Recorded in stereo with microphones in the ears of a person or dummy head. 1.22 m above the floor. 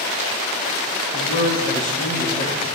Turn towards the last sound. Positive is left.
turn(degrees=40)  # may be behind; listen again after turning